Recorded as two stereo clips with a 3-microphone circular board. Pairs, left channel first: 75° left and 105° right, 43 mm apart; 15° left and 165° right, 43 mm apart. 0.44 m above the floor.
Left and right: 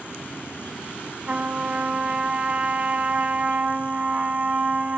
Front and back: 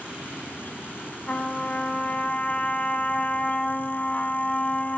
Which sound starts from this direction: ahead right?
A trumpet, at 1.2 s.